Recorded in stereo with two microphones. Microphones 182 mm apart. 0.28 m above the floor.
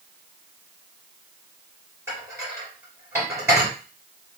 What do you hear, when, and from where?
2.1 s dishes clattering: 15° right (ahead or behind), 3 m